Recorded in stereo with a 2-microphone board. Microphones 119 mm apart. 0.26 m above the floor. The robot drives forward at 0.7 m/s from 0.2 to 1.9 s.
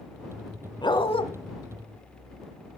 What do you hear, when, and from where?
0.8 s a dog barking: 40° left (ahead or behind), 1.2 m; by 1.2 s 50° left (ahead or behind), 1.0 m